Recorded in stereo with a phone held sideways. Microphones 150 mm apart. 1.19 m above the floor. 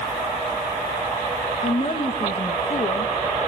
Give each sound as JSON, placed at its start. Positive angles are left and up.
{"t": 1.6, "sound": "a woman speaking", "side_deg": 35, "distance_m": 1.7}